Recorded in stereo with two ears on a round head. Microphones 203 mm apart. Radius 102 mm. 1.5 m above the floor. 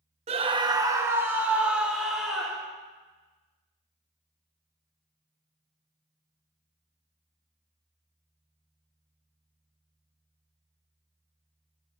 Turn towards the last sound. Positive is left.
turn(degrees=0)  # may be behind; listen again after turning